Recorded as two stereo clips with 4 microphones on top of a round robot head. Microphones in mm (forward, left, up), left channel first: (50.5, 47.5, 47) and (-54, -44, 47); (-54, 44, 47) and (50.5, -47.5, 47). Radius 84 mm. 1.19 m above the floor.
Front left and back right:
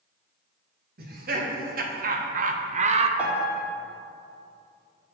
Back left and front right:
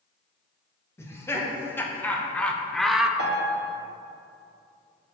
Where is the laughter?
150° right, 1.5 m; by 3.1 s 125° right, 0.6 m.